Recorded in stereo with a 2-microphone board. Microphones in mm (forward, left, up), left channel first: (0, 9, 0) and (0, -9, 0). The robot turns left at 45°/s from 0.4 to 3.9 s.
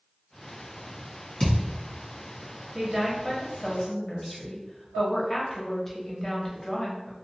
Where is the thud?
55° left (ahead or behind), 1.4 m; by 1.7 s 60° left (ahead or behind), 1.4 m.